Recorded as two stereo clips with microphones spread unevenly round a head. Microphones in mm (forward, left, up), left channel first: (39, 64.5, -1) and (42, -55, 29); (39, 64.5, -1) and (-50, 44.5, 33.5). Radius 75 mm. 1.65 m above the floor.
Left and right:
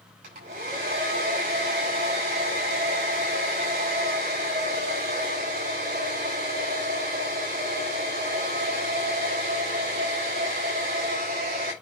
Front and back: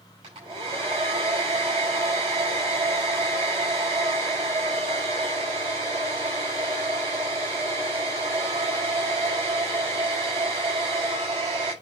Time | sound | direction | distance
0.2 | a hair dryer | 115° right | 5.5 m